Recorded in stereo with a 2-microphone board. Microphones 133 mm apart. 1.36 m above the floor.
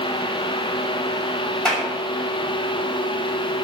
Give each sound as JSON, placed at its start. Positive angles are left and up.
{"t": 1.6, "sound": "a clap", "side_deg": 5, "distance_m": 6.5}